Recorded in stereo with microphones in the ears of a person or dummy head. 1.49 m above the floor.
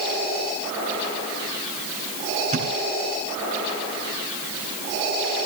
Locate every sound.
2.5 s a thud: 45° right (ahead or behind), 4 m